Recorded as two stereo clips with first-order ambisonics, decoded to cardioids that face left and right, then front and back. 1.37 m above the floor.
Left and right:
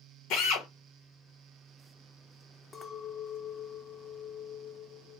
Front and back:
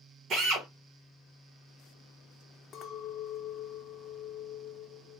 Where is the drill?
125° left, 1.2 m.